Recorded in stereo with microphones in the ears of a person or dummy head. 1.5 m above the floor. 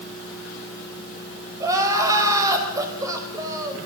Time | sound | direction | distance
1.6 | crying | 20° right (ahead or behind) | 5 m